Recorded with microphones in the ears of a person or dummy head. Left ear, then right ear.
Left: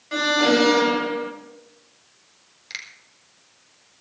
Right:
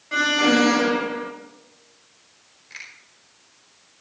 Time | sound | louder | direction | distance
0.1 | an alarm | even | 15° left (ahead or behind) | 1.8 m
2.7 | a finger snap | left 4 dB | 45° left (ahead or behind) | 4 m